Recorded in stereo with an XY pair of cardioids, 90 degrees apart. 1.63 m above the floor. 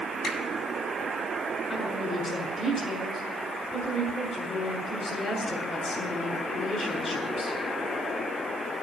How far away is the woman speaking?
About 6.5 m.